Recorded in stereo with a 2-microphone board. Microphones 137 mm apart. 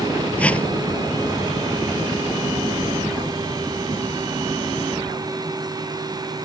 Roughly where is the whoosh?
Centre.